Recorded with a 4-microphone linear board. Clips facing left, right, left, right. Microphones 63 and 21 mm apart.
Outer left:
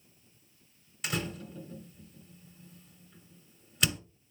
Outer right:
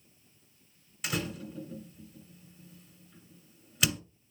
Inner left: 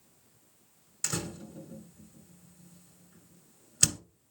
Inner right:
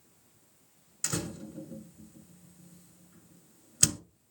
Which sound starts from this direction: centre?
A door slam, at 1.0 s.